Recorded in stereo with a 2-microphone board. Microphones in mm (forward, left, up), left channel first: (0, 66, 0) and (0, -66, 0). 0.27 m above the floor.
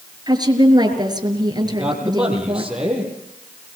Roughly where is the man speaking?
Centre.